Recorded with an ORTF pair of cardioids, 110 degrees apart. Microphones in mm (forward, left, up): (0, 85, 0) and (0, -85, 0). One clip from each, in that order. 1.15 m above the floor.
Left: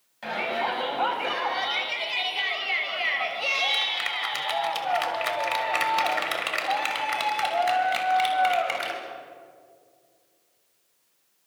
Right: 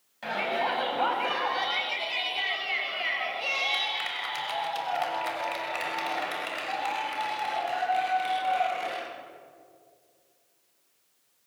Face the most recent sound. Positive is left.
turn(degrees=75)